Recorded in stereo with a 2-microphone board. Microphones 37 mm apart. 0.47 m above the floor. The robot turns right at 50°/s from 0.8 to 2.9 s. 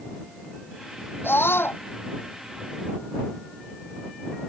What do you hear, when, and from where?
1.2 s a scream: 80° left; by 1.8 s 75° left (ahead or behind)